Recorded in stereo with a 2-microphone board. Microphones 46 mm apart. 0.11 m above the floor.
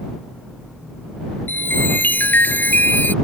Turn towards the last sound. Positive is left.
turn(degrees=45)  # may be behind; listen again after turning